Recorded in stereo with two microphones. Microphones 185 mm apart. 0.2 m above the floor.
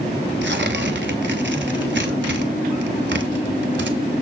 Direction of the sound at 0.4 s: 75° right (ahead or behind).